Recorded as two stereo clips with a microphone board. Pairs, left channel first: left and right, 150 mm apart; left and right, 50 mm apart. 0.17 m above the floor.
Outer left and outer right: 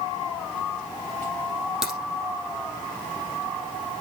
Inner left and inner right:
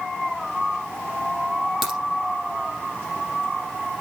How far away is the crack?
About 4 m.